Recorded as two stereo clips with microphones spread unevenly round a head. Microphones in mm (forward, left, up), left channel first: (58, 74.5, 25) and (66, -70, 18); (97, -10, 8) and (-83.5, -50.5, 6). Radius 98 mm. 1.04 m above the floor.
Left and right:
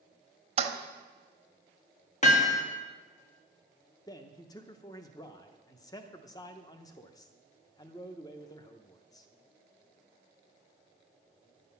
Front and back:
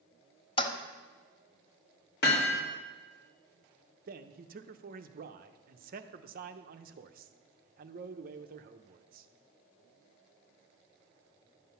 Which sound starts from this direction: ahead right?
A toilet flushing, at 0.6 s.